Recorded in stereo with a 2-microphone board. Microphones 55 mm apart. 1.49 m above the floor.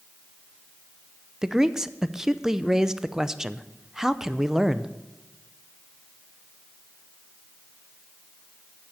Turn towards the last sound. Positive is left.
turn(degrees=-10)  # may be behind; listen again after turning